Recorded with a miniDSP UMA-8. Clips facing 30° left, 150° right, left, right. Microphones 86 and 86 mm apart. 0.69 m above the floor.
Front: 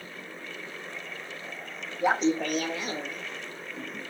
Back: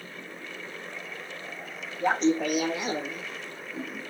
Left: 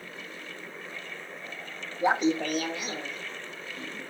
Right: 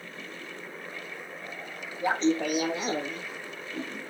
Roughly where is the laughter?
Left.